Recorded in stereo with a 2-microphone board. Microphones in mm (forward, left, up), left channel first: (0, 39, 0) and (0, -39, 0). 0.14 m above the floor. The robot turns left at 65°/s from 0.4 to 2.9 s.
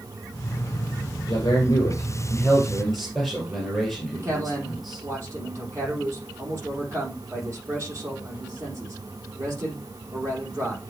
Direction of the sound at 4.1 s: 35° right (ahead or behind).